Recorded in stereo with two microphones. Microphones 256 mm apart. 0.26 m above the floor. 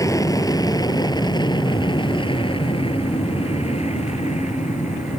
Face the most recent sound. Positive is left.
turn(degrees=30)  # may be behind; listen again after turning